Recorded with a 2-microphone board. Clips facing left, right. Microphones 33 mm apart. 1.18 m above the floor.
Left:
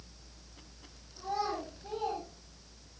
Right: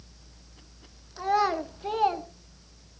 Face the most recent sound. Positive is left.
turn(degrees=-75)  # may be behind; listen again after turning